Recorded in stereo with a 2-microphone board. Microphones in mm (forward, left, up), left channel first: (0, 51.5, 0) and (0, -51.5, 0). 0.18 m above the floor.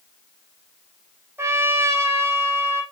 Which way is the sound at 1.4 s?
25° right (ahead or behind).